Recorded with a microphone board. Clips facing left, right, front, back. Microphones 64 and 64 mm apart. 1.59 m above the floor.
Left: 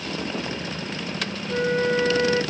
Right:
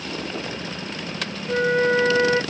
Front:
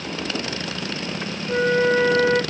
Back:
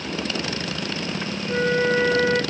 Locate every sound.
1.5 s a flute: 80° right, 0.6 m